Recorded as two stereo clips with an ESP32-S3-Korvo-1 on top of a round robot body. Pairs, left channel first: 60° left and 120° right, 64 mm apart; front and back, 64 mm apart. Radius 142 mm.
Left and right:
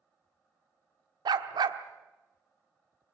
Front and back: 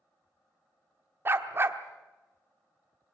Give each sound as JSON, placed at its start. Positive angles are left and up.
{"t": 1.2, "sound": "a dog barking", "azimuth_deg": -125, "distance_m": 1.0}